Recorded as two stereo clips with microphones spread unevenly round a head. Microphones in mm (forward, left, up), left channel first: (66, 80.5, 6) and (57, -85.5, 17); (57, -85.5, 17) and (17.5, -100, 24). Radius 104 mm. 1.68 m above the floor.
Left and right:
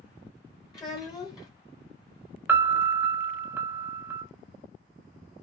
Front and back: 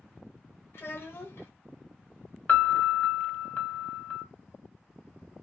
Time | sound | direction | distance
0.7 | a child speaking | 30° left | 0.6 m
2.5 | a piano | 30° right | 0.5 m